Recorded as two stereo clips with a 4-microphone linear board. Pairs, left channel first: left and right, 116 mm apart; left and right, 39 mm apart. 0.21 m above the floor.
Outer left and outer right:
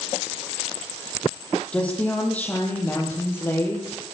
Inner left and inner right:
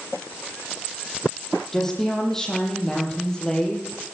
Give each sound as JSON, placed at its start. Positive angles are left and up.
{"t": 1.7, "sound": "a woman speaking", "side_deg": 10, "distance_m": 8.5}